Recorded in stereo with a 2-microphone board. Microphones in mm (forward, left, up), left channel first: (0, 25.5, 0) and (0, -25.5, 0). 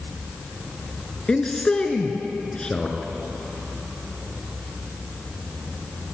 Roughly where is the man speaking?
Centre.